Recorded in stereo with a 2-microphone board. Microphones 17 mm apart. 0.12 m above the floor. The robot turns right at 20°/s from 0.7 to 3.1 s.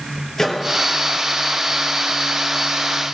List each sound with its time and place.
0.4 s a microwave: 30° left (ahead or behind), 2.5 m